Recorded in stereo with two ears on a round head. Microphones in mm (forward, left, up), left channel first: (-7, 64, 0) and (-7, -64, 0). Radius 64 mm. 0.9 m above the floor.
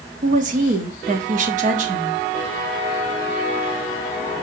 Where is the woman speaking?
60° right (ahead or behind), 1.4 m.